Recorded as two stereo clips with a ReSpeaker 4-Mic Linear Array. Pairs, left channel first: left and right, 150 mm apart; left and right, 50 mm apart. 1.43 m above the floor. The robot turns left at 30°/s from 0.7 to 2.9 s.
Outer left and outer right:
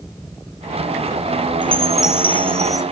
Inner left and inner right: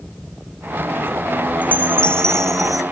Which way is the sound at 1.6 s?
35° left.